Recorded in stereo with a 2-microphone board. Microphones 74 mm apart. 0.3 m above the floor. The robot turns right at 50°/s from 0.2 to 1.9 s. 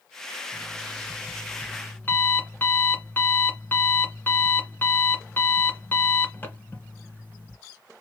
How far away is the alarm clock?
About 1.6 m.